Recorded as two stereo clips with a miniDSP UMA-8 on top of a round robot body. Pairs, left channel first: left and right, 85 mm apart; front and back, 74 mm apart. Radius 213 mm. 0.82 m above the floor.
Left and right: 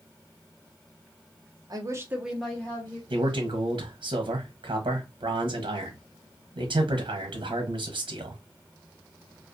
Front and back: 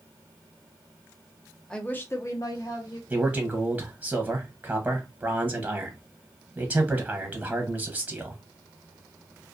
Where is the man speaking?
105° right, 0.7 m.